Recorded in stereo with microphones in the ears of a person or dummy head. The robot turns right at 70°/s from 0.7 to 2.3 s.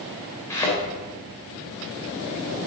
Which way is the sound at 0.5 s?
15° left (ahead or behind).